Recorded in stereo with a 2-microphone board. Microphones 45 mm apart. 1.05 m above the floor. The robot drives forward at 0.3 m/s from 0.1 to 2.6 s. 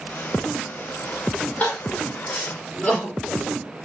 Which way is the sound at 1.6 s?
40° left (ahead or behind).